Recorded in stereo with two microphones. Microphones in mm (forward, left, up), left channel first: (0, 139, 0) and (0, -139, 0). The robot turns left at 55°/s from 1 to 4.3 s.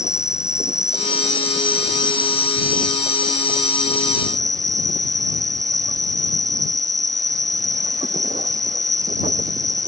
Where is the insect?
170° left; by 9.9 s 10° right.